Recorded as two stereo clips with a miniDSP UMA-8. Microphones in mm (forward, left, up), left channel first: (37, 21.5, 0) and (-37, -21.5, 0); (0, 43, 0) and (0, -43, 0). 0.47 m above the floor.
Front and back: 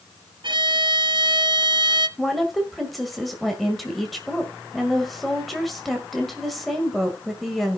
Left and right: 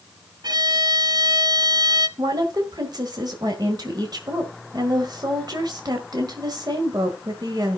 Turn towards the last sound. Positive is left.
turn(degrees=-60)